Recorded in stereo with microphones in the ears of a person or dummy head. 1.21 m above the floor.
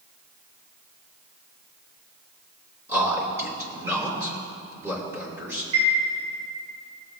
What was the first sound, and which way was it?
A man speaking, 15° right (ahead or behind).